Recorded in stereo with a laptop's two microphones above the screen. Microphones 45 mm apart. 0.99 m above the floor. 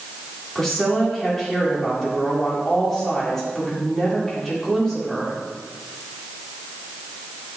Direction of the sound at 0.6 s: 10° left (ahead or behind).